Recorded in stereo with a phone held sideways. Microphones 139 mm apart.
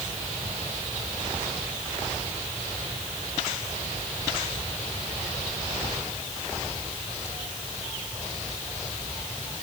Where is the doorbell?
No doorbell in this recording.